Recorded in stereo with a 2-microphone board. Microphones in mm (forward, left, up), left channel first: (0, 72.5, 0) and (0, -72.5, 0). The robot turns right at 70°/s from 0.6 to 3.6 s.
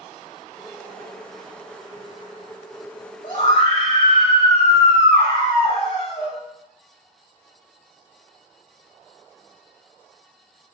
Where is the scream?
55° left (ahead or behind), 1.2 m; by 6.4 s 35° left (ahead or behind), 1.2 m.